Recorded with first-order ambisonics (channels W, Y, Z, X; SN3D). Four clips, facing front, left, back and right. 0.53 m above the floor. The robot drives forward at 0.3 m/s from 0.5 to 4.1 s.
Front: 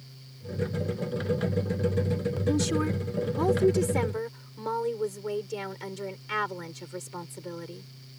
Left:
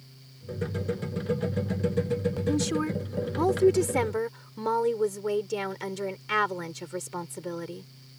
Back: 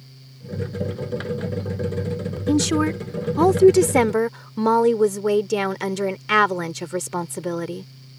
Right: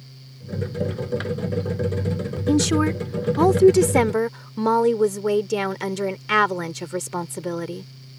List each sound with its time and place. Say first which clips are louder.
2.5 s a woman speaking: right 10 dB, back 8 dB; 130° right; by 7.9 s 145° right